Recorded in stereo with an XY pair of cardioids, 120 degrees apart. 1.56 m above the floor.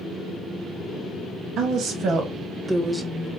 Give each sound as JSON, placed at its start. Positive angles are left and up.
{"t": 1.6, "sound": "a woman speaking", "azimuth_deg": -70, "distance_m": 1.0}